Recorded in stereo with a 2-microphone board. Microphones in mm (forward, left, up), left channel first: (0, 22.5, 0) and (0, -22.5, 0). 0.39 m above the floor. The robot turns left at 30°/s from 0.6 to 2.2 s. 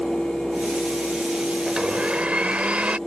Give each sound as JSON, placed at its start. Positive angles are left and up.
{"t": 1.7, "sound": "a blender", "side_deg": -20}